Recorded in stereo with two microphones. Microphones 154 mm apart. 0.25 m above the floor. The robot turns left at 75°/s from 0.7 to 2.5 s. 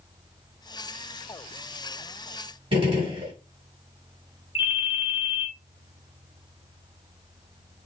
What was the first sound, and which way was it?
A gunshot, 35° right (ahead or behind).